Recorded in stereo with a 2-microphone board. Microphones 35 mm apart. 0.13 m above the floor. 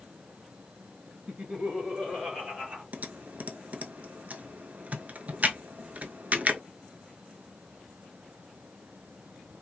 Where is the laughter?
50° right (ahead or behind), 2.5 m; by 2.8 s 35° right (ahead or behind), 3 m.